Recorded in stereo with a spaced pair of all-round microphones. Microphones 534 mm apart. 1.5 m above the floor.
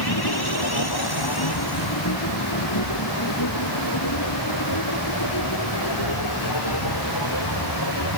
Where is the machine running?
45° left (ahead or behind).